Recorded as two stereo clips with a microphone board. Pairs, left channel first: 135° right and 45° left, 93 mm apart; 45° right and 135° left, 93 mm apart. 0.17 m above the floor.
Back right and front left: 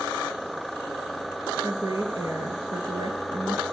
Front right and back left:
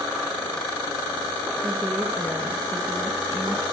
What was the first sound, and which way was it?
A woman speaking, 80° left.